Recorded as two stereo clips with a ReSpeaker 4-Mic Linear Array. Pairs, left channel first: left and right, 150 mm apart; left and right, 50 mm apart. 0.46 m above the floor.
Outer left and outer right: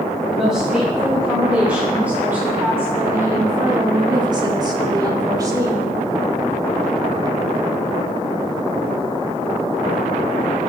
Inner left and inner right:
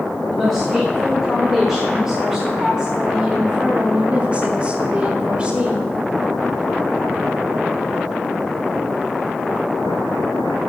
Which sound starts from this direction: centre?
A woman speaking, at 0.3 s.